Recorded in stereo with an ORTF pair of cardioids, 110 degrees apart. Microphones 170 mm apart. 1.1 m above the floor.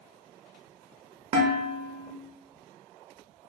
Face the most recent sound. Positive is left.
turn(degrees=-35)